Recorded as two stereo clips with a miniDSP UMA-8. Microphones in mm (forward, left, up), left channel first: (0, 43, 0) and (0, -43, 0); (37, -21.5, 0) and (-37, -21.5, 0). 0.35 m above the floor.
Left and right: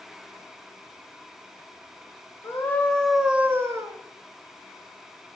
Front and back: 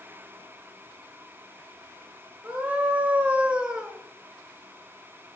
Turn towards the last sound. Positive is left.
turn(degrees=-100)